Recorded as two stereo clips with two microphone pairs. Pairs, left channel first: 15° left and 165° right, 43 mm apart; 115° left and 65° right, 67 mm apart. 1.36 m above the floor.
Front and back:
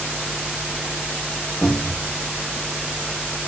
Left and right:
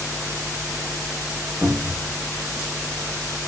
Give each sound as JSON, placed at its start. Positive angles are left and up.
{"t": 1.6, "sound": "a cupboard door", "azimuth_deg": -5, "distance_m": 2.0}